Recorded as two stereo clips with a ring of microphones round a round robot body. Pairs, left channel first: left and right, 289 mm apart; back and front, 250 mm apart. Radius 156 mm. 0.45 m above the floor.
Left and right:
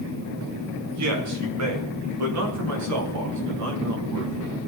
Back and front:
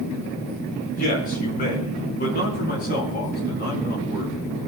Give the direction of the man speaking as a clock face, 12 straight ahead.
4 o'clock.